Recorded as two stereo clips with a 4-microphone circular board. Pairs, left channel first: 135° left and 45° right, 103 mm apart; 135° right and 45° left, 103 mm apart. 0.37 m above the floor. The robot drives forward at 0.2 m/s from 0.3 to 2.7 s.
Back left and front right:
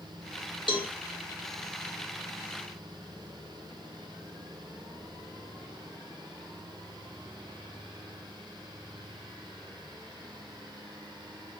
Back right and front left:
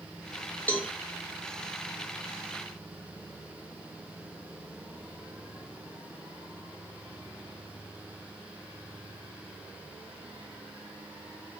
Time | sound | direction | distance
0.7 | a cowbell | 155° left | 0.6 m